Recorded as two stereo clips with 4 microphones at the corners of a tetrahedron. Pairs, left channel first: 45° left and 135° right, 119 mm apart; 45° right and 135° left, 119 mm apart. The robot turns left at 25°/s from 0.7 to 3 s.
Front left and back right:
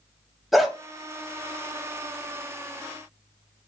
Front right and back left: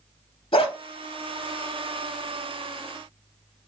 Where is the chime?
I don't hear a chime.